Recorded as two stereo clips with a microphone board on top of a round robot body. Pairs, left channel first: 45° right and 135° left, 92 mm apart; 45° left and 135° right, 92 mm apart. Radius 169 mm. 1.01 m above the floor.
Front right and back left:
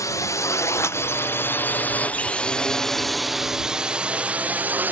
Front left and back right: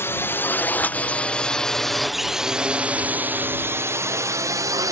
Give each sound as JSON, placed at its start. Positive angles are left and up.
{"t": 0.0, "sound": "a drone", "azimuth_deg": -10}